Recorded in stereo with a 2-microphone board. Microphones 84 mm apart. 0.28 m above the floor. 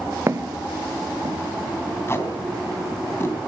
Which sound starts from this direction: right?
Footsteps, at 0.3 s.